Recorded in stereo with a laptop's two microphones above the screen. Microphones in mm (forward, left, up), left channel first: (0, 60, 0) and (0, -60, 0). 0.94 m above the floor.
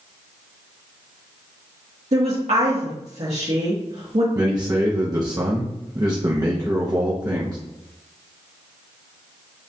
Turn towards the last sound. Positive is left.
turn(degrees=-35)  # may be behind; listen again after turning